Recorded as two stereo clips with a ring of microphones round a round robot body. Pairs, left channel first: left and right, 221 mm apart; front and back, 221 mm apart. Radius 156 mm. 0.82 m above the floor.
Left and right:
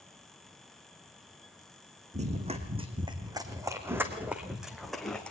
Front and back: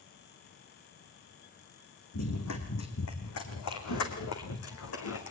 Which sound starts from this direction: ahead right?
Running footsteps, at 2.1 s.